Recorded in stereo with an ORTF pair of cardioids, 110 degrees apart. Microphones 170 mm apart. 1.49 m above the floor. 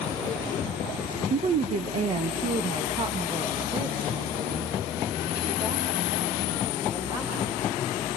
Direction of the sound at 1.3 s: 45° right.